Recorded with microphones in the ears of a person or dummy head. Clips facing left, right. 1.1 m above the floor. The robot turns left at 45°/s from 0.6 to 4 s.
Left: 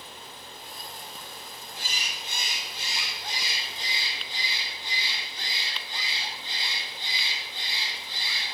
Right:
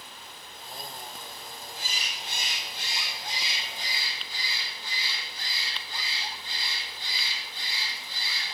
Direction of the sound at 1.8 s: 125° left.